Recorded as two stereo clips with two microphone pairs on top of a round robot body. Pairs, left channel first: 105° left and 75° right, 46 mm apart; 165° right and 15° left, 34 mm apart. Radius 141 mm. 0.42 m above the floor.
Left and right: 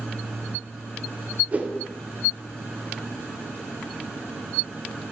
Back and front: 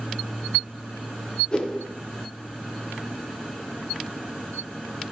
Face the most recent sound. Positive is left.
turn(degrees=-125)